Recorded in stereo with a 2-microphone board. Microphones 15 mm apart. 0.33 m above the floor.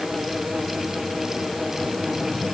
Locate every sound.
Only background noise.